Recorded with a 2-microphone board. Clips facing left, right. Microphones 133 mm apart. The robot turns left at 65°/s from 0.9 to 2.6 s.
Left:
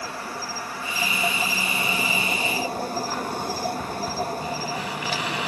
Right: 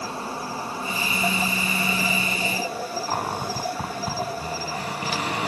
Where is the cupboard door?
45° right (ahead or behind), 3.5 m.